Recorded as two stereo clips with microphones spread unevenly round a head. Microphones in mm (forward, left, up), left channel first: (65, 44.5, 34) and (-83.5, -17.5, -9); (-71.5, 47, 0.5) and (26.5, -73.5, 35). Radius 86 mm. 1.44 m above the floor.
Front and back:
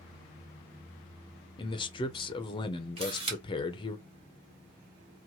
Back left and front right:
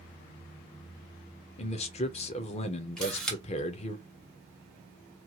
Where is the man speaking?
90° left, 0.5 m.